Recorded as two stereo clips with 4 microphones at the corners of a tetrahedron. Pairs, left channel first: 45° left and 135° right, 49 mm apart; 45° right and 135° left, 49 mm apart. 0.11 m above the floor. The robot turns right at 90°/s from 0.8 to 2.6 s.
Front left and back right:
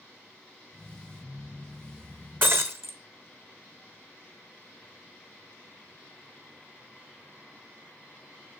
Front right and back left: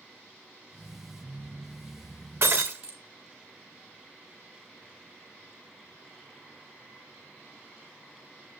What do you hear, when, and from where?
2.4 s breaking glass: straight behind, 1.3 m; by 3.0 s 165° right, 1.3 m